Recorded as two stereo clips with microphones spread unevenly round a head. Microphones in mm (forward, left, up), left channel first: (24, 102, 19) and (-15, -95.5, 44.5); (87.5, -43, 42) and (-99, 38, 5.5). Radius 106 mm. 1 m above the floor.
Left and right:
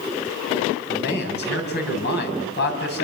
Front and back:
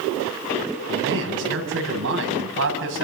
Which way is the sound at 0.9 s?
120° left.